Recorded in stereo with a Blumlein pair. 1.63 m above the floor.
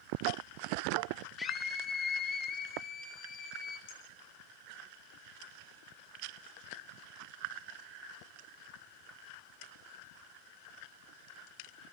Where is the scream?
10° left, 3.5 m; by 3.8 s 25° left, 5.5 m.